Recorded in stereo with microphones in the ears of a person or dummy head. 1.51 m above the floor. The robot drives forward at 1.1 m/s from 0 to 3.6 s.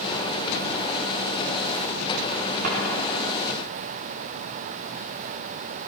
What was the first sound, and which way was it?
A drawer, 50° right (ahead or behind).